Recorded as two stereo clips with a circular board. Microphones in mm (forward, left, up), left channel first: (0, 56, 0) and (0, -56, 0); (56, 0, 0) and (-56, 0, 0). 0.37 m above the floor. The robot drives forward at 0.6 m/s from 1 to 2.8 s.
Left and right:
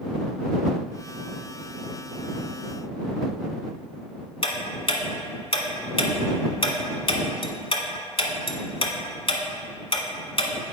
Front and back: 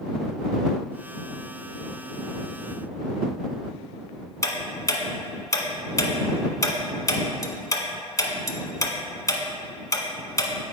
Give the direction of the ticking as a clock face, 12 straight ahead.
10 o'clock.